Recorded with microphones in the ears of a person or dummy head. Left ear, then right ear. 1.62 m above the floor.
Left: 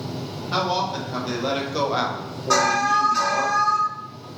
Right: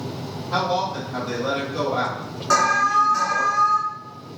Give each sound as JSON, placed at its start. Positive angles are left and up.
{"t": 0.5, "sound": "a man speaking", "side_deg": 35, "distance_m": 1.6}
{"t": 2.5, "sound": "an alarm", "side_deg": -15, "distance_m": 1.3}